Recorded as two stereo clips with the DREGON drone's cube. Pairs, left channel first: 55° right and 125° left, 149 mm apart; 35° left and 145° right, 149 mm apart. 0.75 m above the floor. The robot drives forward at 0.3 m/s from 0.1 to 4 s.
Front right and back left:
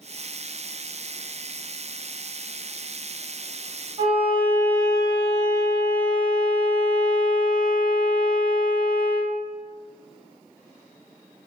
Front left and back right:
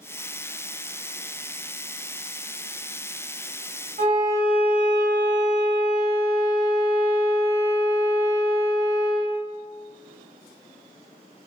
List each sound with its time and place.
4.0 s a violin: 175° left, 1.3 m